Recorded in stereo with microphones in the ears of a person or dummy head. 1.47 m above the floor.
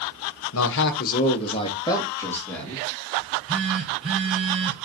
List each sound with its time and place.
0.5 s a man speaking: 75° left (ahead or behind), 1.2 m; by 2.8 s 5° left (ahead or behind), 3 m
3.2 s a phone buzzing: 25° right (ahead or behind), 2.5 m